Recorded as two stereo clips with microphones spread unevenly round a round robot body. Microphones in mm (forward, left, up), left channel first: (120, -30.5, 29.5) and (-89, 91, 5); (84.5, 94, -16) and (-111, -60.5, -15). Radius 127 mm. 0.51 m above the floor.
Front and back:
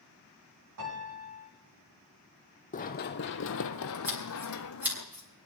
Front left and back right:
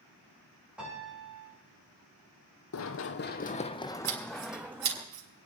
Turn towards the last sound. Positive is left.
turn(degrees=-130)